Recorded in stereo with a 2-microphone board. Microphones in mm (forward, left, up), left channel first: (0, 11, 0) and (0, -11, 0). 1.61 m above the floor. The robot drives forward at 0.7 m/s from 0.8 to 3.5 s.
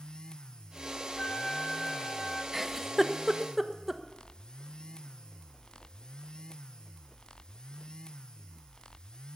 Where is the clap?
No clap in this recording.